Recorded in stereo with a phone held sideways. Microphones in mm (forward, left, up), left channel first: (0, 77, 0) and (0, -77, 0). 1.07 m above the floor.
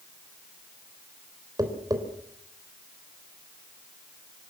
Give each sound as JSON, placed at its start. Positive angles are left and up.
{"t": 1.6, "sound": "tapping", "side_deg": -25, "distance_m": 4.0}